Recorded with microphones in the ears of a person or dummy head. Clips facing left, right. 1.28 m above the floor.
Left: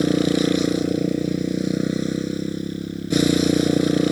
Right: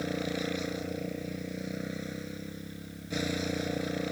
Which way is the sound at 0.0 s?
80° left.